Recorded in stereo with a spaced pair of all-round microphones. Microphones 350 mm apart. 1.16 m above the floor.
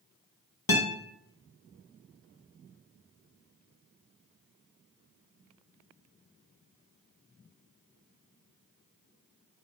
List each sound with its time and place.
0.7 s a guitar: 75° left (ahead or behind), 0.9 m